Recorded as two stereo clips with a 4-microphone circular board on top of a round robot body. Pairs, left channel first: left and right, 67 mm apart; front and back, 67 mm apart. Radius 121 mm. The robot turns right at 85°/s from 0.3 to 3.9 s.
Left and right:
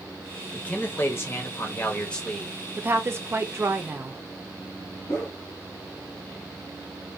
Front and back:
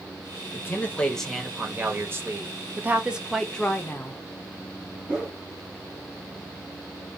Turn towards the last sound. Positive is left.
turn(degrees=110)